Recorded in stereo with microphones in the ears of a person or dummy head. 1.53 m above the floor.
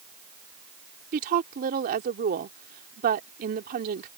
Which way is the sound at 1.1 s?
50° right (ahead or behind).